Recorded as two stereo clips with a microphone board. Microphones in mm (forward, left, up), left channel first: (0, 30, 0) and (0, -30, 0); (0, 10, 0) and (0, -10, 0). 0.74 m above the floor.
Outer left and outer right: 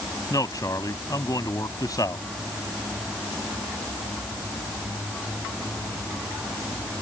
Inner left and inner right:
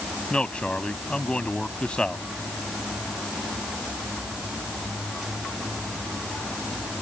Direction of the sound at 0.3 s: 75° left (ahead or behind).